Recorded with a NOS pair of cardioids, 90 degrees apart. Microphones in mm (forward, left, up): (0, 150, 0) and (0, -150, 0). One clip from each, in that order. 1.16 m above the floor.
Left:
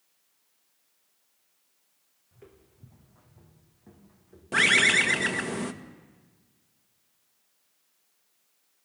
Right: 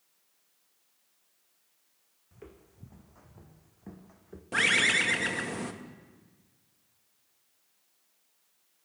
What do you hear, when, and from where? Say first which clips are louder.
2.3 s footsteps: right 3 dB; 35° right, 3.5 m; by 4.4 s 60° right, 3.5 m
4.5 s a bird: left 4 dB; 20° left, 1.8 m